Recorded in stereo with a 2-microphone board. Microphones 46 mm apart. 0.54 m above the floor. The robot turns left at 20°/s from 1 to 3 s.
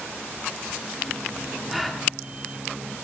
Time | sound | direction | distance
1.7 | a gasp | centre (ahead or behind) | 0.7 m